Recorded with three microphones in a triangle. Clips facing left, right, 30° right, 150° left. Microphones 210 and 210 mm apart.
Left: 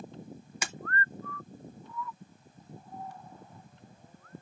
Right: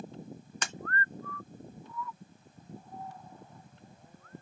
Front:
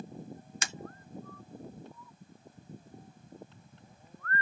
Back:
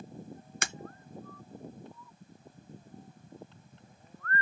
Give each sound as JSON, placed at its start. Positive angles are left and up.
{"t": 0.6, "sound": "breaking glass", "azimuth_deg": 170, "distance_m": 0.6}